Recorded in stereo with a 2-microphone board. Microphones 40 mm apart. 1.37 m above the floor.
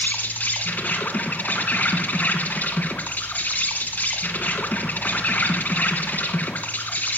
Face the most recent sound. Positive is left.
turn(degrees=40)  # may be behind; listen again after turning